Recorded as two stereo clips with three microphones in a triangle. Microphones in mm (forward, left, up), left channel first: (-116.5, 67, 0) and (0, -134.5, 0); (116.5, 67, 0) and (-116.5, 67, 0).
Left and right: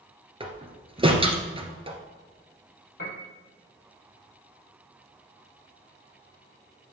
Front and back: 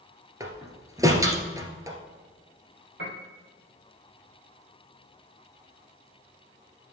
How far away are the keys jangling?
I don't hear keys jangling.